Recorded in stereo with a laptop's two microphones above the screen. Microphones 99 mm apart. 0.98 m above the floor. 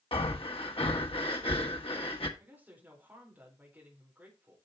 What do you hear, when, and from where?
0.1 s breathing: 70° left (ahead or behind), 1.3 m
2.4 s a woman speaking: 15° right (ahead or behind), 3.5 m